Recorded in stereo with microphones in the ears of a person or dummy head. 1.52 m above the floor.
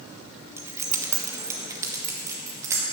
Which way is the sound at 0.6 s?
15° right (ahead or behind).